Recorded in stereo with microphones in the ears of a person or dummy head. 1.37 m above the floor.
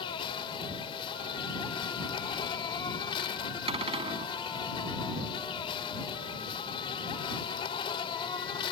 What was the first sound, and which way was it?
An insect, 25° left (ahead or behind).